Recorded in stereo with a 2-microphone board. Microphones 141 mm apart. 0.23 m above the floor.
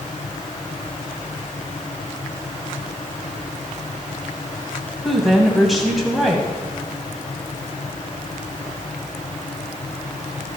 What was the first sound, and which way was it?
A woman speaking, centre (ahead or behind).